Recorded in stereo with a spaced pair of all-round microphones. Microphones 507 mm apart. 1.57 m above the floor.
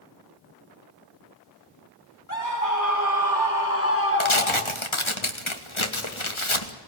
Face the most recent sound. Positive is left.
turn(degrees=70)  # may be behind; listen again after turning